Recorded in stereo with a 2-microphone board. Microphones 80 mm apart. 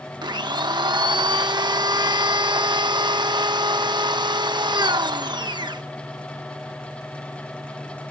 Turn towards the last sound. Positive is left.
turn(degrees=-70)  # may be behind; listen again after turning